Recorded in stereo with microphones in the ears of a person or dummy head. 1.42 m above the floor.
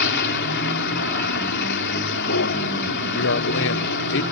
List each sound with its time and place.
0.0 s a vehicle: 55° left (ahead or behind)
3.1 s a man speaking: 60° left (ahead or behind)